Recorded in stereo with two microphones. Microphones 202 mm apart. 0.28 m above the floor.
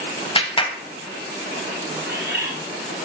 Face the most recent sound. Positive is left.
turn(degrees=-50)  # may be behind; listen again after turning